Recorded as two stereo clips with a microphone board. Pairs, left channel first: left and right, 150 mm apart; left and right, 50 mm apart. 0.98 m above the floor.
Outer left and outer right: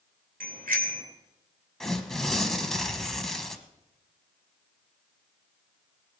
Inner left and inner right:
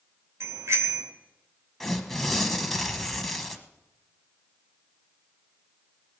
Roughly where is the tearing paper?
Centre.